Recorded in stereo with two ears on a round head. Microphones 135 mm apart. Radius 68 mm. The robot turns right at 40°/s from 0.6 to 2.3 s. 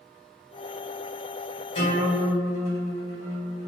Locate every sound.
1.8 s a guitar: 40° left (ahead or behind), 1.5 m; by 3.7 s 60° left (ahead or behind), 1.5 m